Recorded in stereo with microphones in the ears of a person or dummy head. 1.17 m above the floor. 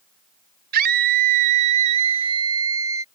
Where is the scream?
50° right (ahead or behind); by 3.0 s 15° right (ahead or behind).